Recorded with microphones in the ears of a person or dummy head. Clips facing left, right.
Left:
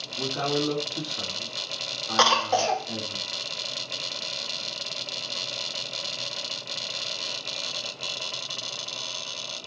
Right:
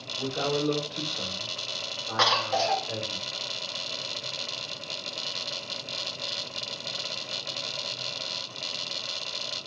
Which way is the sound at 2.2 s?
50° left (ahead or behind).